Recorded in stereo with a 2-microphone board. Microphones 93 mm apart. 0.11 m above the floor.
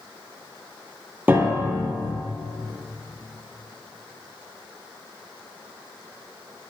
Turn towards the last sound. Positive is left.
turn(degrees=-20)  # may be behind; listen again after turning